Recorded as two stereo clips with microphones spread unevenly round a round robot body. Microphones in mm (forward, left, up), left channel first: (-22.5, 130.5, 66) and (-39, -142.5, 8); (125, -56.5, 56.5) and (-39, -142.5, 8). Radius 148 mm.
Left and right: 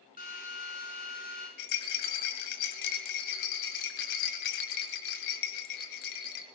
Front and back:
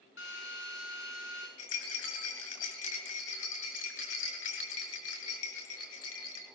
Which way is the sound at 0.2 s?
25° left.